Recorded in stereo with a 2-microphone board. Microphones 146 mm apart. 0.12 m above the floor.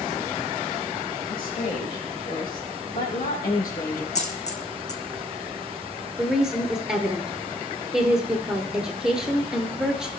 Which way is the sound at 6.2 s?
5° right (ahead or behind).